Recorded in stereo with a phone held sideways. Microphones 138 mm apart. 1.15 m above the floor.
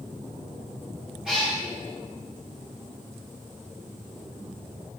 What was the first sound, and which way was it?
A cat meowing, 5° right (ahead or behind).